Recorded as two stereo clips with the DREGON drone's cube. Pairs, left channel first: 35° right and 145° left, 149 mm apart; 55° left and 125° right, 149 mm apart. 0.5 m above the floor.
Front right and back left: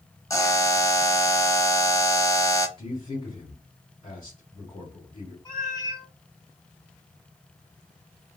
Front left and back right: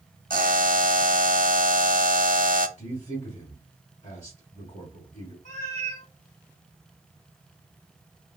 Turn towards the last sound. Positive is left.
turn(degrees=25)